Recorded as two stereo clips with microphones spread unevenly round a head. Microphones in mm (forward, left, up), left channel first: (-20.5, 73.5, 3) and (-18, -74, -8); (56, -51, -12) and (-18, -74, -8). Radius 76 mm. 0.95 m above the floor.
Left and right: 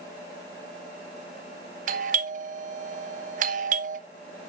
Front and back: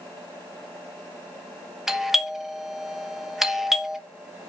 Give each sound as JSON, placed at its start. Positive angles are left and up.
{"t": 1.9, "sound": "a doorbell", "azimuth_deg": -75, "distance_m": 1.0}